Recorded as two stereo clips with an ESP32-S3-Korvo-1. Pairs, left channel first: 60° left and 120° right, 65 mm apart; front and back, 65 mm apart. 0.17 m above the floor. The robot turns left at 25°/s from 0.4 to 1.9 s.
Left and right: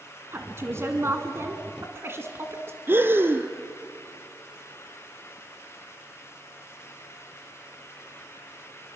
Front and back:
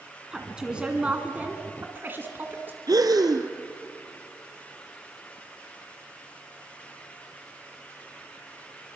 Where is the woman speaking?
105° right, 1.7 m; by 2.8 s 140° right, 1.7 m.